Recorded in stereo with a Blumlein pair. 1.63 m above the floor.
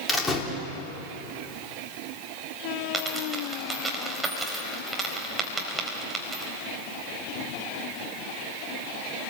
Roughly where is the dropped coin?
Ahead.